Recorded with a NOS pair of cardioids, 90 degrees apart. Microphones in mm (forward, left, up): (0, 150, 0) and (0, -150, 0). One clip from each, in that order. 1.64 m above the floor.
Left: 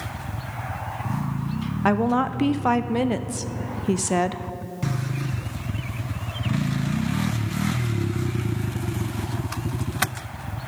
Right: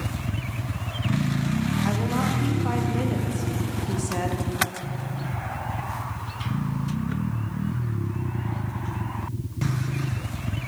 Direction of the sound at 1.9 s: 40° left.